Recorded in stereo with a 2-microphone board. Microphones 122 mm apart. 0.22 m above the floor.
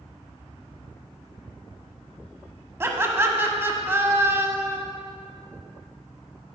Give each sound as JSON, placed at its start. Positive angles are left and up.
{"t": 2.8, "sound": "laughter", "side_deg": -20, "distance_m": 1.4}